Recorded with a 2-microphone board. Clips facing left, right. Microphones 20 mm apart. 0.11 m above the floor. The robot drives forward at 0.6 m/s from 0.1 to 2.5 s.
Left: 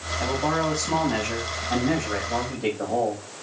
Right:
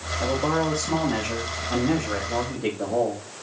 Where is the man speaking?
20° left (ahead or behind), 7 m; by 3.2 s 25° left (ahead or behind), 5.5 m.